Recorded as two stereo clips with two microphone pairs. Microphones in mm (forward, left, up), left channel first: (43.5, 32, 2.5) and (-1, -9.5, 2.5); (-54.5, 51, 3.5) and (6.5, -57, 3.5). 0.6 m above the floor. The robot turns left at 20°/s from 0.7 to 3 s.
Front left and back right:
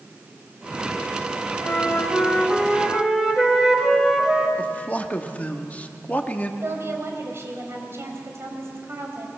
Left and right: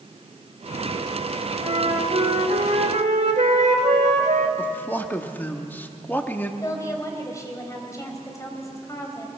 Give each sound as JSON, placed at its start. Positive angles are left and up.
{"t": 1.6, "sound": "a flute", "azimuth_deg": -30, "distance_m": 1.9}
{"t": 4.6, "sound": "a man speaking", "azimuth_deg": 65, "distance_m": 1.1}
{"t": 6.6, "sound": "a woman speaking", "azimuth_deg": 180, "distance_m": 3.5}